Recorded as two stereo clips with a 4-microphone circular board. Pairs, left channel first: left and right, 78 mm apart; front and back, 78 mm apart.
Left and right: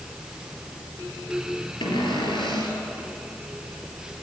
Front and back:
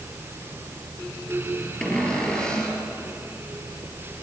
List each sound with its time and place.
1.8 s a cupboard door: 80° left, 4.5 m